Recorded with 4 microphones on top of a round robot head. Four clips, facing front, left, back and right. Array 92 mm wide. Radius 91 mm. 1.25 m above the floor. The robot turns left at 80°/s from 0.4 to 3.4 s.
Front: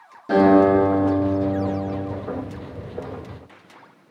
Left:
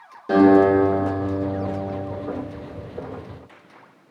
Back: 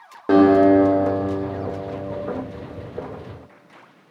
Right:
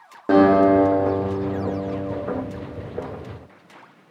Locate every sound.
0.3 s a guitar: 135° right, 1.1 m; by 2.1 s 85° left, 1.1 m